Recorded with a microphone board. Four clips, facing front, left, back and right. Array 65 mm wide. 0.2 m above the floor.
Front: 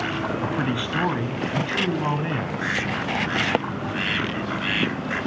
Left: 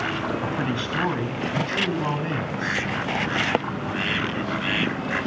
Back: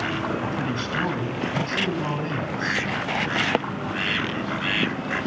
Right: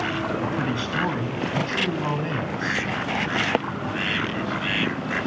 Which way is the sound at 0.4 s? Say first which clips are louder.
Even, front 2 dB; 10° left.